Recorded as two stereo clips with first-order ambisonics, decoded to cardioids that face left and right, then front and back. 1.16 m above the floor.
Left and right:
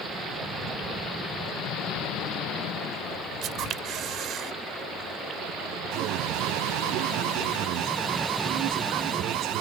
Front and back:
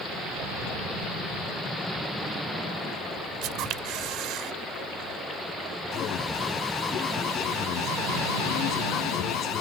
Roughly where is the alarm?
Ahead right.